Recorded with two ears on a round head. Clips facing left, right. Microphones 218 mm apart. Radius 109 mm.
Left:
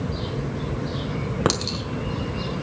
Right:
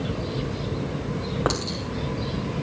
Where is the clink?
40° left (ahead or behind), 2.0 m.